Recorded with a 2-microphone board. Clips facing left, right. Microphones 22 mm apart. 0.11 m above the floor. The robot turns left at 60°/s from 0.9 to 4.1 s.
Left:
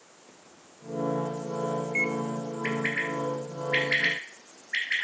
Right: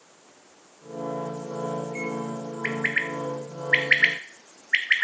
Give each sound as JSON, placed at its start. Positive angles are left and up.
{"t": 0.3, "sound": "a microwave", "side_deg": 0, "distance_m": 1.1}
{"t": 2.6, "sound": "a bird", "side_deg": -25, "distance_m": 1.6}